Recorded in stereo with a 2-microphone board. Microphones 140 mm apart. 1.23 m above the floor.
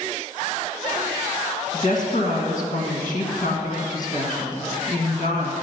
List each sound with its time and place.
1.7 s a woman speaking: 65° left (ahead or behind), 1.5 m